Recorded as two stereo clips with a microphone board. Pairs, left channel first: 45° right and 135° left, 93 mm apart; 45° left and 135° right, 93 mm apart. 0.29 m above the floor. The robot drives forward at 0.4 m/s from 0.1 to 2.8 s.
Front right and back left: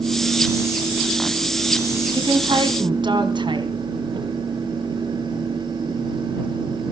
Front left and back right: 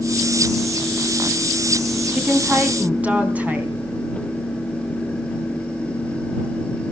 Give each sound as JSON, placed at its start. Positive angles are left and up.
{"t": 2.1, "sound": "a woman speaking", "azimuth_deg": 150, "distance_m": 3.0}